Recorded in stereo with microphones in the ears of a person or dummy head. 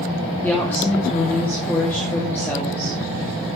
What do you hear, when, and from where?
0.4 s a woman speaking: 5° left (ahead or behind), 2.5 m